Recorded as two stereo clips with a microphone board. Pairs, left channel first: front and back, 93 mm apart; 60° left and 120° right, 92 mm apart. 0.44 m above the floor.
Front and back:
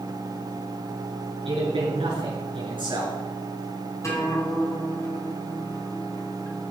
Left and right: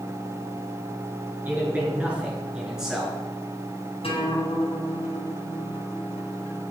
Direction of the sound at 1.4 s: 170° left.